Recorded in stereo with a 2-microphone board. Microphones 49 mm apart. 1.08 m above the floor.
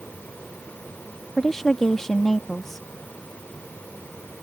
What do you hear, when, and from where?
1.4 s a woman speaking: 10° left (ahead or behind)